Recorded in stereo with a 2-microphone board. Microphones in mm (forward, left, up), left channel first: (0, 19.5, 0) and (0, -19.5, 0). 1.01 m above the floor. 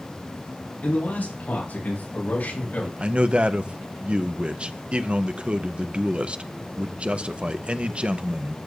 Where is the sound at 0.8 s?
55° left (ahead or behind), 7.5 m; by 2.9 s 60° left (ahead or behind), 5 m.